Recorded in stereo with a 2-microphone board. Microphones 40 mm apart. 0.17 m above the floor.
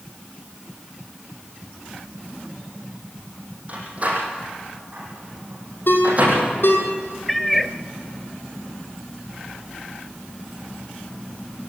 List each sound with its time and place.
3.7 s a door slam: 35° right (ahead or behind), 6.5 m
5.9 s a ringtone: 65° left (ahead or behind), 4 m
7.3 s a cat meowing: 5° left (ahead or behind), 1.0 m